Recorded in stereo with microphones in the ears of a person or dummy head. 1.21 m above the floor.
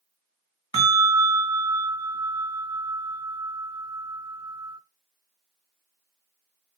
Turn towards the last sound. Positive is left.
turn(degrees=-35)  # may be behind; listen again after turning